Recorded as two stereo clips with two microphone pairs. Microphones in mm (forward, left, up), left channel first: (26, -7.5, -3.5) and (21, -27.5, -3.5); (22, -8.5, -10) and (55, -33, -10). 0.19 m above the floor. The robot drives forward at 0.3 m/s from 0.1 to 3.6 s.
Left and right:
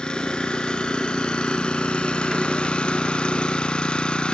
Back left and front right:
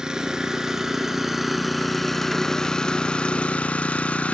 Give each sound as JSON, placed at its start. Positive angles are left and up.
{"t": 0.0, "sound": "an engine running", "azimuth_deg": 30, "distance_m": 1.3}